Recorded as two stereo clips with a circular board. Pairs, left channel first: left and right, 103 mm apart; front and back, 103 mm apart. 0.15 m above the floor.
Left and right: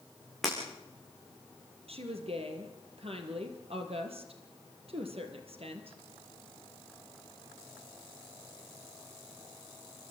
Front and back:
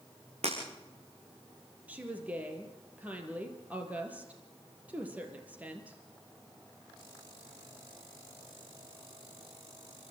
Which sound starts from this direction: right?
A woman speaking, at 1.9 s.